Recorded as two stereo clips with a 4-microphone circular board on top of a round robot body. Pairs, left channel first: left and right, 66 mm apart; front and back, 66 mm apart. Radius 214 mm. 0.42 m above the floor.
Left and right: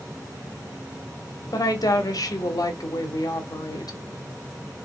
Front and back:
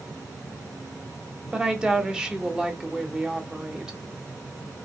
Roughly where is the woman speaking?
Left.